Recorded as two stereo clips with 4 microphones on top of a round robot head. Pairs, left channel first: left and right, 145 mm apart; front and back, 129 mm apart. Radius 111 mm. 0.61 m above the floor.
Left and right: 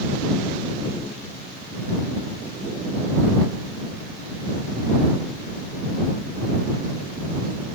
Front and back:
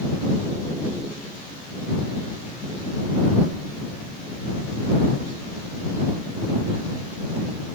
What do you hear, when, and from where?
Only background noise.